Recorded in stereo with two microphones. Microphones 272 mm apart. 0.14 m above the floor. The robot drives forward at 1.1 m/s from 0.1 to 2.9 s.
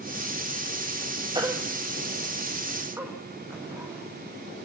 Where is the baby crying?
15° right (ahead or behind), 1.6 m; by 4.7 s 10° right (ahead or behind), 3.5 m.